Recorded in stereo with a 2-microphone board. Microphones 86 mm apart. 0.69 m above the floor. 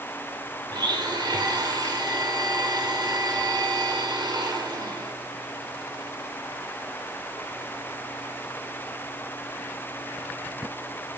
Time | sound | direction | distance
0.7 | a blender | 65° right (ahead or behind) | 2.5 m